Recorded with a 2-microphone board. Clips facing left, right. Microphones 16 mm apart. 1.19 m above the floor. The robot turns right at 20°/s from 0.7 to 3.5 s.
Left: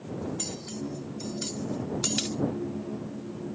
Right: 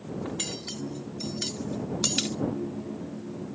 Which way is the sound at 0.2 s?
35° right (ahead or behind).